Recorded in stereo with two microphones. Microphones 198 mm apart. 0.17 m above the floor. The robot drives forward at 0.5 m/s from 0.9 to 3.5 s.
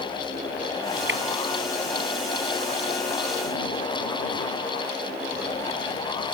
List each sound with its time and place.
1.1 s dripping: 70° right (ahead or behind)